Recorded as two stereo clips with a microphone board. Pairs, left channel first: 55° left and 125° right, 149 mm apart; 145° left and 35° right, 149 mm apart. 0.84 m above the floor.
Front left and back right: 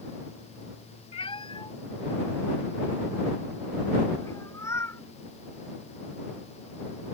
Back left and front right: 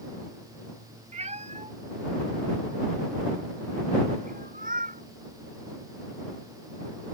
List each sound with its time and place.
1.1 s a cat meowing: 5° left; by 5.0 s 15° right